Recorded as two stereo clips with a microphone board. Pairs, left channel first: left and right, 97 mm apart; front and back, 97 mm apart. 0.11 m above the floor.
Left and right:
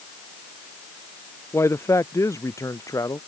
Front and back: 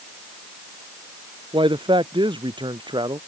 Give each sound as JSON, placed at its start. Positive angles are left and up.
{"t": 1.5, "sound": "a man speaking", "azimuth_deg": 150}